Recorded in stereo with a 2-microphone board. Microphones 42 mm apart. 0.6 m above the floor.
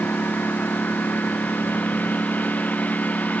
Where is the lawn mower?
45° left (ahead or behind); by 3.4 s 35° left (ahead or behind).